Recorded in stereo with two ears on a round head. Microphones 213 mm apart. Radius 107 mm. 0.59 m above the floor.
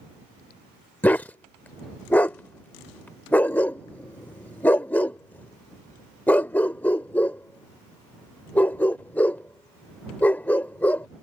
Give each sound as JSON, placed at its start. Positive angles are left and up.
{"t": 1.0, "sound": "a dog barking", "side_deg": 5}